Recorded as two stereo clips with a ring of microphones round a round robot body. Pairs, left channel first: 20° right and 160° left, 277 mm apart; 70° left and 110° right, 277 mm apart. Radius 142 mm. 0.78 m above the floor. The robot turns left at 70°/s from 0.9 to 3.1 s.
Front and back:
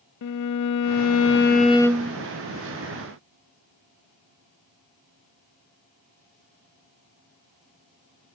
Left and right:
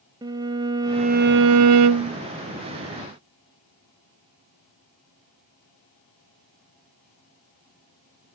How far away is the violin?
About 0.6 m.